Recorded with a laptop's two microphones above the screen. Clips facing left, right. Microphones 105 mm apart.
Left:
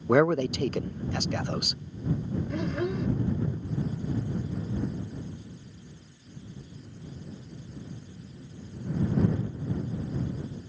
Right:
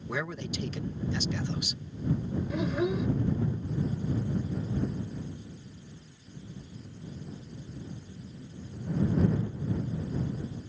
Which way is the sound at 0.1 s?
55° left (ahead or behind).